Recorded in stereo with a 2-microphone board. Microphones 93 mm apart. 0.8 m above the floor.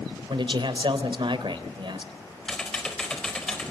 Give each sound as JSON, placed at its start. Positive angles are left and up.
{"t": 0.3, "sound": "a man speaking", "side_deg": -65, "distance_m": 3.0}
{"t": 2.5, "sound": "typing on a keyboard", "side_deg": 10, "distance_m": 4.0}